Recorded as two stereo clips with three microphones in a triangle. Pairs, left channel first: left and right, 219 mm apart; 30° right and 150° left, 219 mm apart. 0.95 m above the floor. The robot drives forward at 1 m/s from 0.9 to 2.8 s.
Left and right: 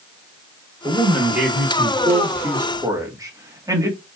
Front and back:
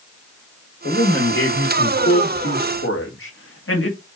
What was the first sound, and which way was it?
A man speaking, 5° right.